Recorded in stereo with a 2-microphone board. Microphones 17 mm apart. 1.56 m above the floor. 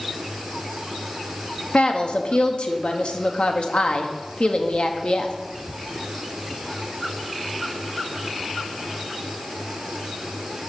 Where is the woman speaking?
70° left (ahead or behind), 1.0 m.